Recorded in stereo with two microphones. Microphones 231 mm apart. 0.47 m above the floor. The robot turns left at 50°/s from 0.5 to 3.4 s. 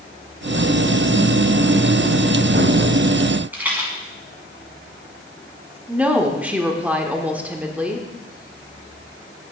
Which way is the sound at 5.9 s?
5° right (ahead or behind).